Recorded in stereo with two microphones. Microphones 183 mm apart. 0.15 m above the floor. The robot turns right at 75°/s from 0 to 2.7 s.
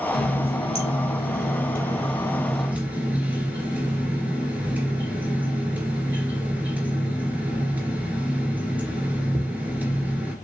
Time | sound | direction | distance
0.1 | a running tap | 5° right | 1.4 m